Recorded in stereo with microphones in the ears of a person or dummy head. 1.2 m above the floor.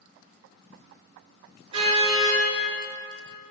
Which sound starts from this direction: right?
A car horn, at 1.7 s.